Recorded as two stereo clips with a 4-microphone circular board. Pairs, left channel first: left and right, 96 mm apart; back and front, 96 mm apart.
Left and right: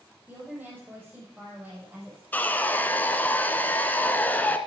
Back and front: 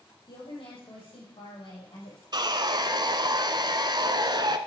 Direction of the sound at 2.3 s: 25° left.